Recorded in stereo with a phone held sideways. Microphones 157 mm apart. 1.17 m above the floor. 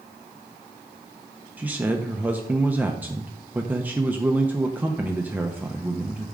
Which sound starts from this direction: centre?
A man speaking, at 1.6 s.